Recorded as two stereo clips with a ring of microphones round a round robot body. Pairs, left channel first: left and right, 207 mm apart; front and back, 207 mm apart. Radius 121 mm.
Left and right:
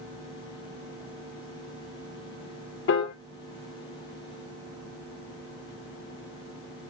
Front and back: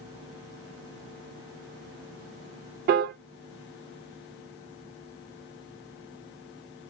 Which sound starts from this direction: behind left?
A piano, at 2.9 s.